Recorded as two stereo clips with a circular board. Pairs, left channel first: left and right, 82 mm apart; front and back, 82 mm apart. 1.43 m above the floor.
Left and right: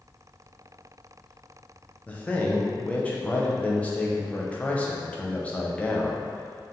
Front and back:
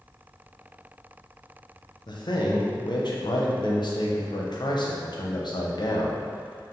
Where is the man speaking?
20° left, 0.7 m.